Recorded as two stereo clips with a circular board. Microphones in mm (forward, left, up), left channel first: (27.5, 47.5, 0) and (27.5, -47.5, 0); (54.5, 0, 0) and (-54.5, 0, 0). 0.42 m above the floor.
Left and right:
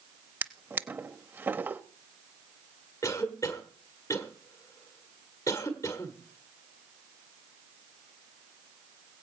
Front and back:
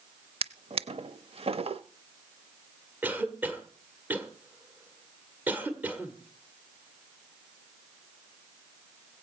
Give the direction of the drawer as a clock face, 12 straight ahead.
5 o'clock.